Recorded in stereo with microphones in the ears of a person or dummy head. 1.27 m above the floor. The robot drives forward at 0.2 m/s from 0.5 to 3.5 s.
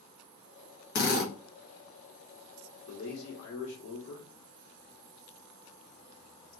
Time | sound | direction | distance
0.9 | a drill | 50° left (ahead or behind) | 0.9 m
2.9 | a man speaking | 70° left (ahead or behind) | 1.1 m